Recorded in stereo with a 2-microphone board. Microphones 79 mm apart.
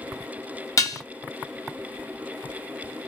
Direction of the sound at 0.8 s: 45° left (ahead or behind).